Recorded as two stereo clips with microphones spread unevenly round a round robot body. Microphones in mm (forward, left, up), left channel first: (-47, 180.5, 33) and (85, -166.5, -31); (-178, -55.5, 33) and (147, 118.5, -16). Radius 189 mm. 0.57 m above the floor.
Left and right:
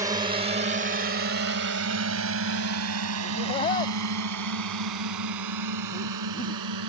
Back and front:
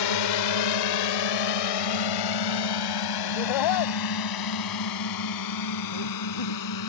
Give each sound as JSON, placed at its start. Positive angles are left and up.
{"t": 0.0, "sound": "a drone", "azimuth_deg": -145}
{"t": 3.2, "sound": "laughter", "azimuth_deg": -175}